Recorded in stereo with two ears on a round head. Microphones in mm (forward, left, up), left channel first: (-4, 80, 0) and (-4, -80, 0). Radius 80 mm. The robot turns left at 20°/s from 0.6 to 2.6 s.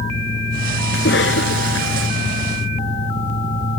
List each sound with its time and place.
0.9 s a cough: 65° left (ahead or behind); by 2.1 s 85° left